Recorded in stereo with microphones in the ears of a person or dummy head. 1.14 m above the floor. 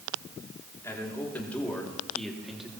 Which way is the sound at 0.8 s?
10° left (ahead or behind).